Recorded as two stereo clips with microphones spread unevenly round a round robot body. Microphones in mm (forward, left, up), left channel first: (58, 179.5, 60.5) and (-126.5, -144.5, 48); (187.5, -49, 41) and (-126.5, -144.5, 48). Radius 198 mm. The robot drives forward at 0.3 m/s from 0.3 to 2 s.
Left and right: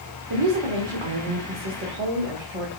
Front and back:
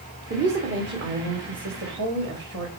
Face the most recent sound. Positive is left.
turn(degrees=-115)